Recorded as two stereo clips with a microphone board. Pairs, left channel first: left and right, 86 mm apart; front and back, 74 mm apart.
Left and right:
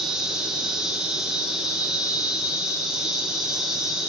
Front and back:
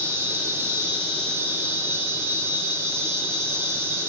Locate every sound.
0.0 s an insect: 165° right, 0.9 m